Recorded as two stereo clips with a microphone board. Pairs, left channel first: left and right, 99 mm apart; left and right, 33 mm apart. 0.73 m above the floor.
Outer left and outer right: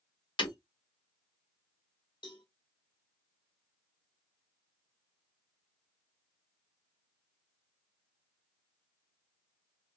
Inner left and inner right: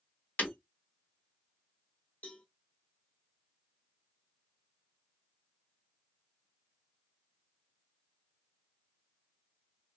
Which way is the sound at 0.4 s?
55° left (ahead or behind).